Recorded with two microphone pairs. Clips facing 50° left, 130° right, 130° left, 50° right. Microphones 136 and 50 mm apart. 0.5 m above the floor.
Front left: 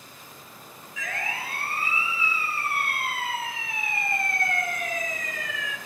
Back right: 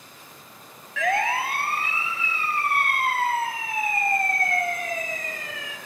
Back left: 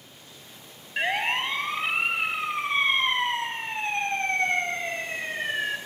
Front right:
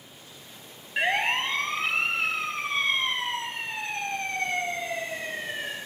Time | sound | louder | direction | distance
1.0 | a siren | back right 11 dB, front right 1 dB | 140° right | 3 m